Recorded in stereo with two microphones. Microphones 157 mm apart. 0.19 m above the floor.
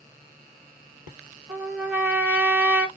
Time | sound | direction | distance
1.5 | a trumpet | 15° right (ahead or behind) | 2 m